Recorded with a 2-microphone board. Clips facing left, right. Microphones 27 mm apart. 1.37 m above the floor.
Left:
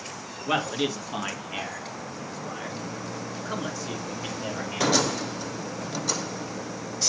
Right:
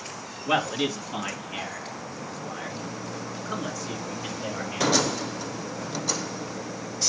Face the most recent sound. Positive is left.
turn(degrees=20)  # may be behind; listen again after turning